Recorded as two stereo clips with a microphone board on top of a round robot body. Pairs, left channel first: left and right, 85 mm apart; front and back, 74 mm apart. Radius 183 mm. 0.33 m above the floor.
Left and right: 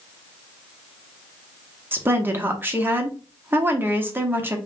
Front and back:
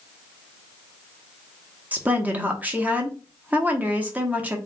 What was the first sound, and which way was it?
A woman speaking, 130° right.